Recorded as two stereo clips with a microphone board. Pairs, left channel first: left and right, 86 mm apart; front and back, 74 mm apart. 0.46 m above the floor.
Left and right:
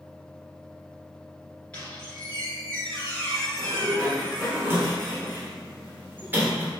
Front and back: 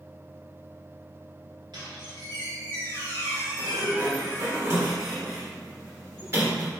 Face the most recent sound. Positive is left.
turn(degrees=-145)